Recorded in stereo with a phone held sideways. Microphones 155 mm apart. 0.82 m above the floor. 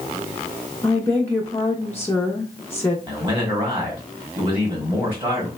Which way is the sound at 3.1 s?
35° right (ahead or behind).